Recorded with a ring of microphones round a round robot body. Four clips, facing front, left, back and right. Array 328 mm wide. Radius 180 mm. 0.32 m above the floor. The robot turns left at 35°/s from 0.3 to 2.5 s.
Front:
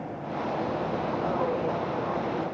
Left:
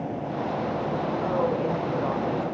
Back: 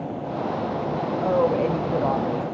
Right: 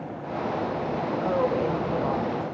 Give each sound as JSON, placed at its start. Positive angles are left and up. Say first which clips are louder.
{"t": 1.2, "sound": "a woman speaking", "louder": "right 2 dB, back 9 dB", "azimuth_deg": -165, "distance_m": 2.5}